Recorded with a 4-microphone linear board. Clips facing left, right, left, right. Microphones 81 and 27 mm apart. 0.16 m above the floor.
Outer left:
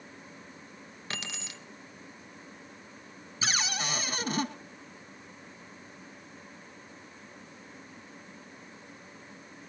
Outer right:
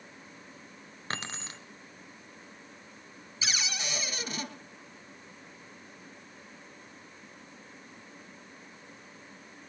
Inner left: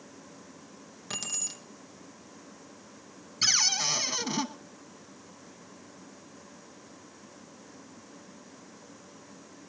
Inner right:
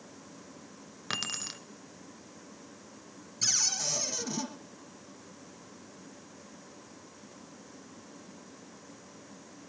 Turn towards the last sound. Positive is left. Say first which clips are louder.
# outer left 4 dB, inner left 5 dB
turn(degrees=40)  # may be behind; listen again after turning